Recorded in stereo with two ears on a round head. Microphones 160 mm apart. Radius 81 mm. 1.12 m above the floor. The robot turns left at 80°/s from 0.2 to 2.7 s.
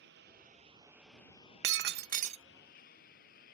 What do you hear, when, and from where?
0.0 s a lawn mower: 70° right (ahead or behind); by 3.5 s 55° left (ahead or behind)
1.6 s breaking glass: 85° right; by 2.4 s 145° right